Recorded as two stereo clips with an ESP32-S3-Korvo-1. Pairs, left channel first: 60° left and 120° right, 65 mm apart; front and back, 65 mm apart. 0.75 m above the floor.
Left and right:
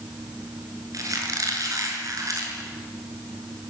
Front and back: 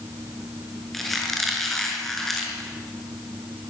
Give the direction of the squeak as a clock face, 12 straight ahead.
3 o'clock.